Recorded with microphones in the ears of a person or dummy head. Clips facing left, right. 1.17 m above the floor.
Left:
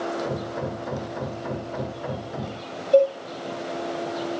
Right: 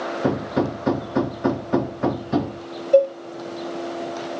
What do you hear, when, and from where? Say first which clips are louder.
0.2 s hammering: right 7 dB; 75° right (ahead or behind), 1.3 m
2.9 s a cowbell: right 2 dB; 25° right (ahead or behind), 1.5 m